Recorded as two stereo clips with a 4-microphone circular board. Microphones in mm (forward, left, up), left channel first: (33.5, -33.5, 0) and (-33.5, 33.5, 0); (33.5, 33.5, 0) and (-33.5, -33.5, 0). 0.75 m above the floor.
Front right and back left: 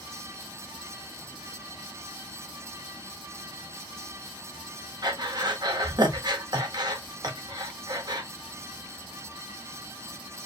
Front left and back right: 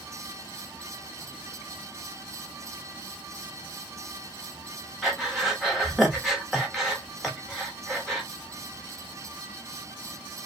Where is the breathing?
140° left, 0.9 m.